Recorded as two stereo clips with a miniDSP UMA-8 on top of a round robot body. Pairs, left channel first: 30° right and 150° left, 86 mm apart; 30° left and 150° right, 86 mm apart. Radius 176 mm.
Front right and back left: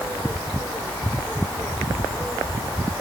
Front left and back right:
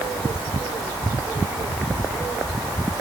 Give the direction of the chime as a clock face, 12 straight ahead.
No chime in this recording.